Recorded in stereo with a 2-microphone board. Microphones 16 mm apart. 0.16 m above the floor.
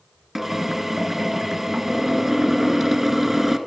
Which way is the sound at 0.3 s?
15° right (ahead or behind).